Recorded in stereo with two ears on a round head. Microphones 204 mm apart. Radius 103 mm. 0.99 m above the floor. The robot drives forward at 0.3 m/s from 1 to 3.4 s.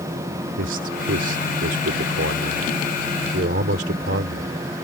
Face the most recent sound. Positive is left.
turn(degrees=-45)  # may be behind; listen again after turning